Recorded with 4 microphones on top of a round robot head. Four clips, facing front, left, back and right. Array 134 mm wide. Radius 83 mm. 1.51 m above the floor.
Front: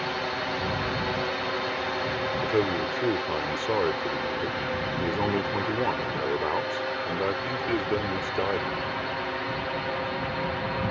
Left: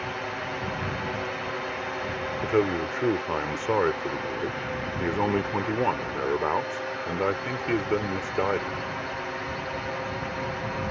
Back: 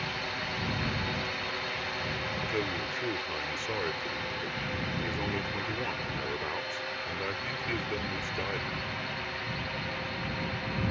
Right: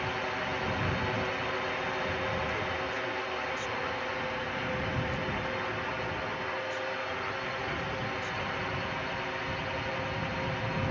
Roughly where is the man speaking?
Ahead left.